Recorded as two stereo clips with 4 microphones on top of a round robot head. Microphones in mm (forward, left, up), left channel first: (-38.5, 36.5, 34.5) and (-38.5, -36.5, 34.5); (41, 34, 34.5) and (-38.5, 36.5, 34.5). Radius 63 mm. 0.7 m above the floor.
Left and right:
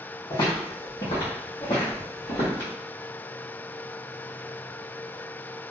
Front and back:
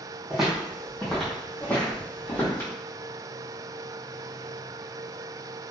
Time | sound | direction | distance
0.3 | footsteps | 95° left | 1.9 m